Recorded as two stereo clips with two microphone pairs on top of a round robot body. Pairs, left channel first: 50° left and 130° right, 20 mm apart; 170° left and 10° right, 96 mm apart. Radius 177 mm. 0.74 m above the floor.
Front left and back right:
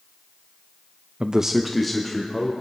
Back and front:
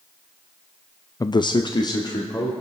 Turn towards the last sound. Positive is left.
turn(degrees=125)